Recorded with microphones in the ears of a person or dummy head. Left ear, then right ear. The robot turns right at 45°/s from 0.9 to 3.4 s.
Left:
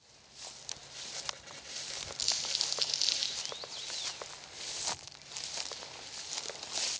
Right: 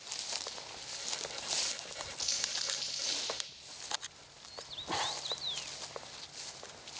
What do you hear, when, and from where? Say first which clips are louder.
2.2 s crumpling: left 3 dB; 25° left (ahead or behind), 0.7 m; by 3.4 s 55° left (ahead or behind), 0.7 m